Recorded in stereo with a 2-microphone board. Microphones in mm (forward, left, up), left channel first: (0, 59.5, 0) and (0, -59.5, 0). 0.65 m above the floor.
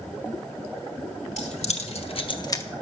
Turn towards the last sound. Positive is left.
turn(degrees=25)  # may be behind; listen again after turning